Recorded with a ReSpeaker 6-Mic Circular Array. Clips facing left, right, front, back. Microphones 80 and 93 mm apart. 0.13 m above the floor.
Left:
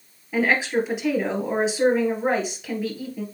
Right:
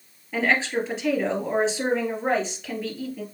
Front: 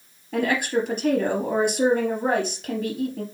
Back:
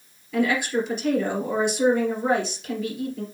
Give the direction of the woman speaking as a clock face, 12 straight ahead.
12 o'clock.